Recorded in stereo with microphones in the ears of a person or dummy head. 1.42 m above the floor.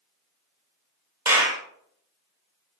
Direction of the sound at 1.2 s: 15° right (ahead or behind).